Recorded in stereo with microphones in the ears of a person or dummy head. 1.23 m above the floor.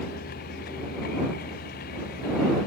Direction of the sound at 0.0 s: 45° left (ahead or behind).